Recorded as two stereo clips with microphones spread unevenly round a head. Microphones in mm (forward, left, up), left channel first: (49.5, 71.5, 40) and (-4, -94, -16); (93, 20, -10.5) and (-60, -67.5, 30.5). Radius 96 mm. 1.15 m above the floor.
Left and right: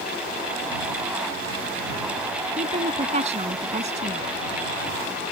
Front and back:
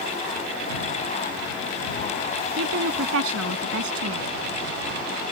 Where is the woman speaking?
165° right.